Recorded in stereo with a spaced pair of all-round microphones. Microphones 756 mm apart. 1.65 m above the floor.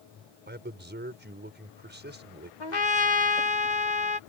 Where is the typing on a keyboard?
No typing on a keyboard in this recording.